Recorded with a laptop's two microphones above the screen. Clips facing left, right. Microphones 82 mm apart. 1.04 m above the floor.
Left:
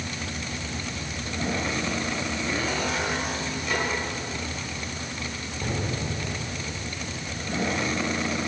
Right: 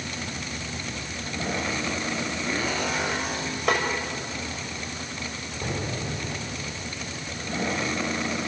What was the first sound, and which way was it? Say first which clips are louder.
A snare drum: right 5 dB; 70° right (ahead or behind).